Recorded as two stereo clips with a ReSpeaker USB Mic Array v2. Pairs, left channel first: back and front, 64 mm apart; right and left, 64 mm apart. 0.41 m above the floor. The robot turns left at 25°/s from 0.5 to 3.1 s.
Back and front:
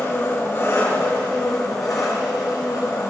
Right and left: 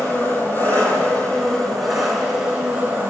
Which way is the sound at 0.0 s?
145° right.